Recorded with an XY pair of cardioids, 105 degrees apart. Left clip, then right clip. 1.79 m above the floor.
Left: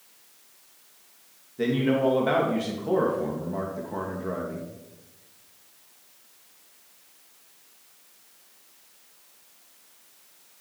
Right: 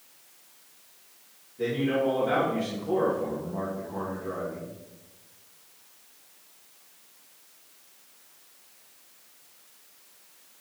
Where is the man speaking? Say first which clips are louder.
Left 2 dB; 65° left, 3 m.